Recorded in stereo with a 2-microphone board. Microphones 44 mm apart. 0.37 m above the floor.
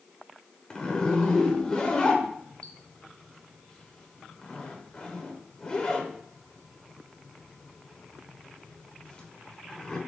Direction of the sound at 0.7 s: 15° left (ahead or behind).